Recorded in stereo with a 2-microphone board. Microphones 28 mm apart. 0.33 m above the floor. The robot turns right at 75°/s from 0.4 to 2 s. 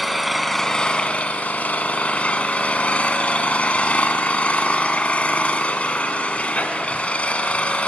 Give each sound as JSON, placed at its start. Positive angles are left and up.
{"t": 0.0, "sound": "an engine running", "azimuth_deg": 0, "distance_m": 0.8}